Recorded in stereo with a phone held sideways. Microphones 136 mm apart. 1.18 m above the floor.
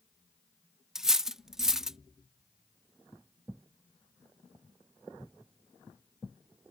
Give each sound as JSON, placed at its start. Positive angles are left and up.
{"t": 0.9, "sound": "cutlery clinking", "side_deg": -5}